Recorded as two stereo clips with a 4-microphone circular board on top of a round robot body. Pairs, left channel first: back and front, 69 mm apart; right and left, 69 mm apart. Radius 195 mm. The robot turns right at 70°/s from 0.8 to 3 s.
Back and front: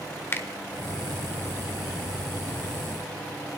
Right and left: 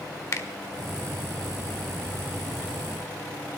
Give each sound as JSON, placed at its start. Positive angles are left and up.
{"t": 0.3, "sound": "a finger snap", "azimuth_deg": -125, "distance_m": 1.3}